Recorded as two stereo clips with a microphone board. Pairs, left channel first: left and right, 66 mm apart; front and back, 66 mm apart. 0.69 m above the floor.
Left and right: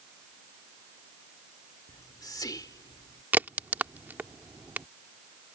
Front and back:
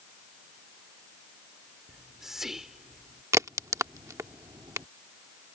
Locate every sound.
1.9 s whispering: 95° left
3.3 s a crack: 150° right